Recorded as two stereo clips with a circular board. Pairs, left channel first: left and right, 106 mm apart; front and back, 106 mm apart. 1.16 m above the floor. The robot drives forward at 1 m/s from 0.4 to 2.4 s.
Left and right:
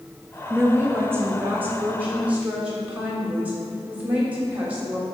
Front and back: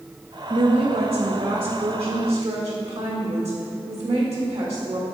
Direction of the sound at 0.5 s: 150° right.